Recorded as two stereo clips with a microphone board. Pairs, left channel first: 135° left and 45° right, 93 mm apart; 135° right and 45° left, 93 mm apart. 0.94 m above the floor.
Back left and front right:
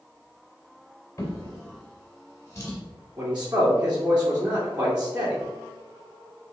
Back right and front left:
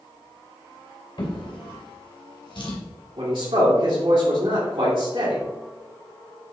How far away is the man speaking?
About 2 m.